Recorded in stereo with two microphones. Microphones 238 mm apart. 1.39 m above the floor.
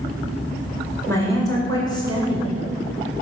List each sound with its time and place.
1.1 s a woman speaking: 10° left (ahead or behind), 5.5 m; by 2.5 s 20° left (ahead or behind), 5.5 m